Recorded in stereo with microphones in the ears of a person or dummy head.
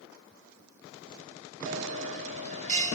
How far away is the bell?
About 3 m.